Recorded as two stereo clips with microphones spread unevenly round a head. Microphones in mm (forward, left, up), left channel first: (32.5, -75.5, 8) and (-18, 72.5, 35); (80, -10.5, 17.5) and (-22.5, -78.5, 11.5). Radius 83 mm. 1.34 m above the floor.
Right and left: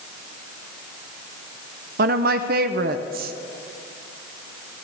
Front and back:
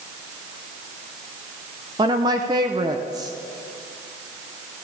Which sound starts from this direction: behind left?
A woman speaking, at 2.0 s.